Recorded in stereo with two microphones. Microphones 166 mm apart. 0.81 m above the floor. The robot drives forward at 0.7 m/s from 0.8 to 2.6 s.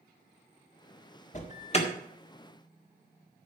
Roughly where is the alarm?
Left.